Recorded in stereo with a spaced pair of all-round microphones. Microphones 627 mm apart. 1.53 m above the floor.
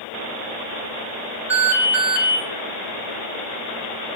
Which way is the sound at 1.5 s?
40° right (ahead or behind).